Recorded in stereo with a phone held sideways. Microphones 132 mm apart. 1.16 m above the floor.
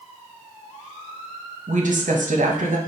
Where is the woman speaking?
75° right (ahead or behind), 1.0 m.